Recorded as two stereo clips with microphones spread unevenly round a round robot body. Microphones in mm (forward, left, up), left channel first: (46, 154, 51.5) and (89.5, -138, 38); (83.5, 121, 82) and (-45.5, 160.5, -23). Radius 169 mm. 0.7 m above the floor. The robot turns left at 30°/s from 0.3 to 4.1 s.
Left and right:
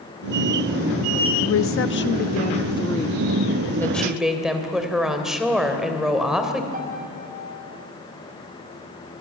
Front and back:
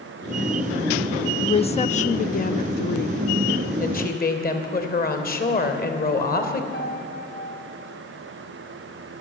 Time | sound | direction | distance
1.4 | a woman speaking | 65° left | 0.8 m
3.8 | a woman speaking | 15° left | 3 m
6.7 | a piano | 20° right | 3.5 m